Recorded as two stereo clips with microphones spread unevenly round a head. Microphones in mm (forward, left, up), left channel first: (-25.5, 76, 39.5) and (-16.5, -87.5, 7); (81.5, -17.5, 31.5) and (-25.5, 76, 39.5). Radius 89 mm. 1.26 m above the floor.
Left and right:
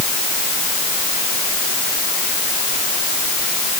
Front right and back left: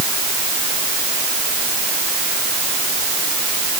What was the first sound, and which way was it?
Only background noise.